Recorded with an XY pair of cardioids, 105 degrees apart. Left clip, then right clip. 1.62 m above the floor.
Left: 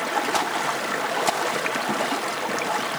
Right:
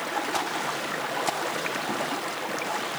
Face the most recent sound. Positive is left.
turn(degrees=25)